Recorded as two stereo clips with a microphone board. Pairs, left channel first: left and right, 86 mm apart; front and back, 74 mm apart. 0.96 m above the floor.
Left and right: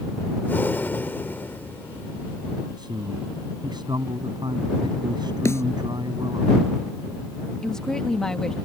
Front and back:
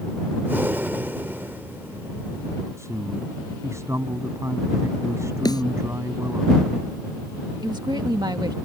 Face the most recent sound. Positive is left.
turn(degrees=175)